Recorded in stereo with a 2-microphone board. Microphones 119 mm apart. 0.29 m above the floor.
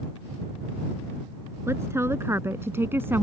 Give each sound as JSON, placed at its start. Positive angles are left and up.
{"t": 1.7, "sound": "a woman speaking", "side_deg": -20}